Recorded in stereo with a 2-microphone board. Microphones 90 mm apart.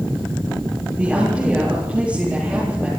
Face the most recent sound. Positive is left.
turn(degrees=-15)  # may be behind; listen again after turning